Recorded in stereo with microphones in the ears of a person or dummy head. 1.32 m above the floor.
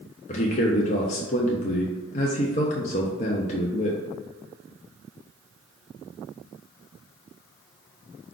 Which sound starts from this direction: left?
A man speaking, at 0.3 s.